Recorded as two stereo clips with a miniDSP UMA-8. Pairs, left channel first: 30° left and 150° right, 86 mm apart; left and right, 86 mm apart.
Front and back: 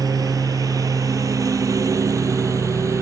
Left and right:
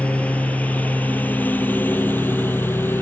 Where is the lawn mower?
165° left; by 3.0 s 155° left.